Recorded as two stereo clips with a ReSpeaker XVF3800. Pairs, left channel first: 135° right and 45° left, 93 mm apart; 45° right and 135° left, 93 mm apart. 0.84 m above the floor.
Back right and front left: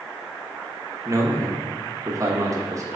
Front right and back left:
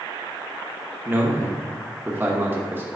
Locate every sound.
1.1 s a man speaking: 80° left, 1.0 m